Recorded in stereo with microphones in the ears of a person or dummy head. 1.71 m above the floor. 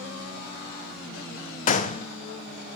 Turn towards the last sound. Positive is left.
turn(degrees=40)  # may be behind; listen again after turning